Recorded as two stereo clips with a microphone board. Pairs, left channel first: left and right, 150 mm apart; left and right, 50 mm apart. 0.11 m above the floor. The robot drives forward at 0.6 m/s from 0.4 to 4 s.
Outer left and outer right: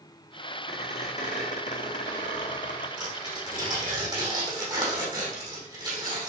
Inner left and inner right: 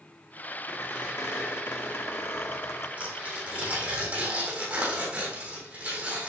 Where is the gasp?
I don't hear a gasp.